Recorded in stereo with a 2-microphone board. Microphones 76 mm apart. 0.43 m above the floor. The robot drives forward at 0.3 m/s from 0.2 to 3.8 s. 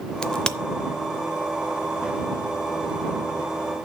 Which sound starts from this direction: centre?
A crack, at 0.2 s.